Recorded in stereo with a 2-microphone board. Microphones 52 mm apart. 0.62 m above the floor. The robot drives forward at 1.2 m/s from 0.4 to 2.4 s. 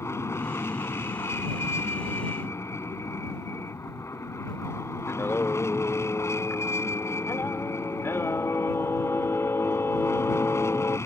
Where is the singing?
60° left (ahead or behind).